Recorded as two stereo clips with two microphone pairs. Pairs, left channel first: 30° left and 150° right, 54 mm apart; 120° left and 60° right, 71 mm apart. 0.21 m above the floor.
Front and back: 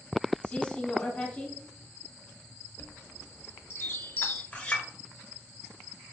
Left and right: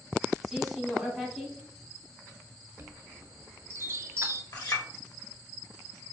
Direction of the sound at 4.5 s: 100° left.